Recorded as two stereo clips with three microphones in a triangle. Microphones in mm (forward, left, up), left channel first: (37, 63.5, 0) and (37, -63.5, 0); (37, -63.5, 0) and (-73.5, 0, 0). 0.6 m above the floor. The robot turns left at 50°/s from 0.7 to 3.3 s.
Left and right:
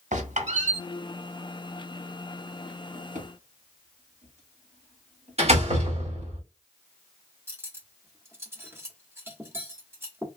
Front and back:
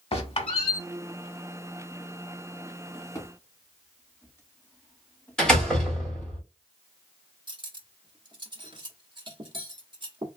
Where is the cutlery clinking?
160° right, 0.9 m.